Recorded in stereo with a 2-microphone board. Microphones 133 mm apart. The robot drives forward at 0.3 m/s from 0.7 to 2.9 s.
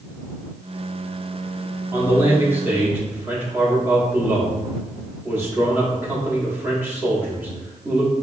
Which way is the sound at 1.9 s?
15° right (ahead or behind).